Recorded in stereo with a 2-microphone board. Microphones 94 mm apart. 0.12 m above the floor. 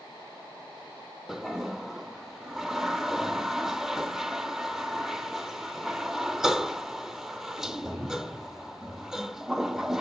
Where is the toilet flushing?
5° right (ahead or behind), 0.6 m.